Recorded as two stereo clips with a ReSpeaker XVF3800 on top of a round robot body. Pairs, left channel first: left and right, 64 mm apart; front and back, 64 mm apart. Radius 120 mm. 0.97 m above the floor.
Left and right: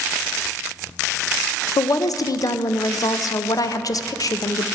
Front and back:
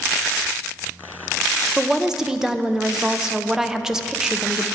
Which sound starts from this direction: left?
A woman speaking, at 1.8 s.